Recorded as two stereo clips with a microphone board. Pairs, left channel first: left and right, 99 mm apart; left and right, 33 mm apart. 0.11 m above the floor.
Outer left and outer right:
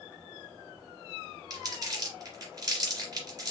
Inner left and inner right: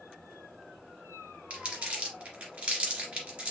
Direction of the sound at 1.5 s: 40° right (ahead or behind).